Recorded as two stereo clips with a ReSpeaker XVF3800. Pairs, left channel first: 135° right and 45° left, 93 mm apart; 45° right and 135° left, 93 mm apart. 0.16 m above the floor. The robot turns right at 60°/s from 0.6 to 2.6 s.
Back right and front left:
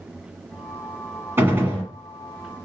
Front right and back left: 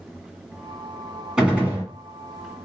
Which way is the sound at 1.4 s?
60° left.